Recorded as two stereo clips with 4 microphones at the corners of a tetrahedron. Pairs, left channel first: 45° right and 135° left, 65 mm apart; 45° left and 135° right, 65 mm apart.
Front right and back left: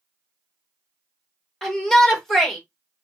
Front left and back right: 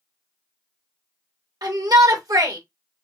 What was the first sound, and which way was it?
A shout, 130° right.